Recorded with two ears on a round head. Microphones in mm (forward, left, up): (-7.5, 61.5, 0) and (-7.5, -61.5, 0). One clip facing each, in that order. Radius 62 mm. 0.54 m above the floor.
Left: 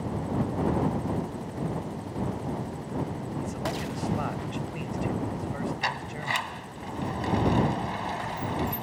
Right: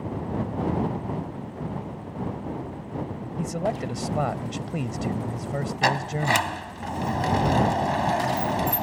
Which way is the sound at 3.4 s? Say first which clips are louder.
Right 7 dB; 55° right (ahead or behind).